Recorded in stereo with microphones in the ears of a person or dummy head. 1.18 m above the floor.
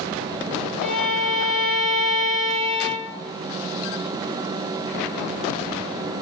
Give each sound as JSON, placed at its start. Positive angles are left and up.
{"t": 0.8, "sound": "a violin", "side_deg": 60, "distance_m": 2.0}